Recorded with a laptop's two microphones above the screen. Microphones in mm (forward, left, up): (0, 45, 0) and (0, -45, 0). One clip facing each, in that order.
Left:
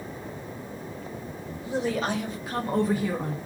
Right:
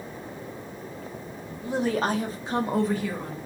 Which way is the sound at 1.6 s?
50° right (ahead or behind).